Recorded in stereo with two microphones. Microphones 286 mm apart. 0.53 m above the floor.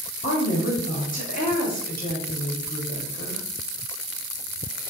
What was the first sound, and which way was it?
A woman speaking, 30° left (ahead or behind).